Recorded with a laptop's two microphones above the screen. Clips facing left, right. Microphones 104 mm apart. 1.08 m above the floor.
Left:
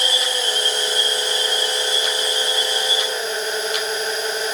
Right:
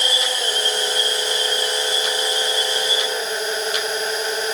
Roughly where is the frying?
No frying in this recording.